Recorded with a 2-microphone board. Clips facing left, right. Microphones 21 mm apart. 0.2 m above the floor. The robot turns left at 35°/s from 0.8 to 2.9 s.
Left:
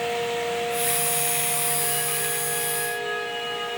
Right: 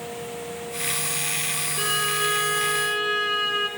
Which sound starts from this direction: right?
A violin, at 1.8 s.